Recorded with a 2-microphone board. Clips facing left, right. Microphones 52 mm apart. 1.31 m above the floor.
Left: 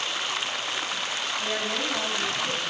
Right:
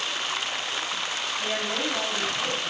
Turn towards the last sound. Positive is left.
turn(degrees=-15)  # may be behind; listen again after turning